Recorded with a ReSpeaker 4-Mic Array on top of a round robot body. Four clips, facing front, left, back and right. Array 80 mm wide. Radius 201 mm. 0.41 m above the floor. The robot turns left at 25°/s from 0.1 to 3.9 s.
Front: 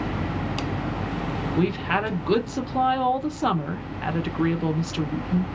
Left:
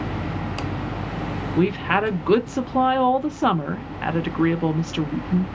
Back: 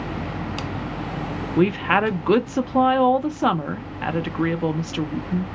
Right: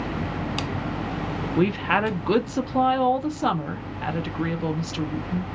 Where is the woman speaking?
175° right, 0.8 m; by 5.5 s 125° left, 0.8 m.